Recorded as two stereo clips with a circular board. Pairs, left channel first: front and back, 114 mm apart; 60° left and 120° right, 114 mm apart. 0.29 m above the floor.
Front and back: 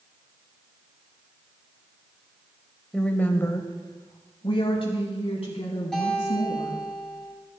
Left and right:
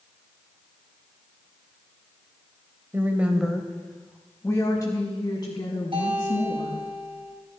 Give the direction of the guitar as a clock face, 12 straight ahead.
3 o'clock.